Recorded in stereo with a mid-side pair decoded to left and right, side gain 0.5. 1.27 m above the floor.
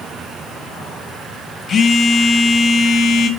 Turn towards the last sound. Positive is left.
turn(degrees=45)